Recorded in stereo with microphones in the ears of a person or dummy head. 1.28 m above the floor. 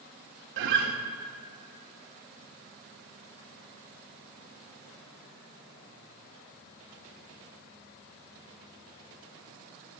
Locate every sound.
0.6 s a guitar: 65° right (ahead or behind), 1.6 m